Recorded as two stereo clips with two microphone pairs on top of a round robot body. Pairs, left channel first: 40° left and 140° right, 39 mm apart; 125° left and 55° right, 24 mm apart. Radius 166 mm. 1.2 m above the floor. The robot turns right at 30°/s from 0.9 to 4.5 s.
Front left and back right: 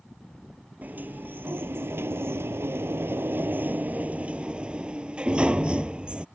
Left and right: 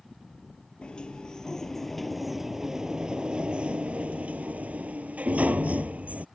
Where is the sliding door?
175° left; by 6.2 s 80° right.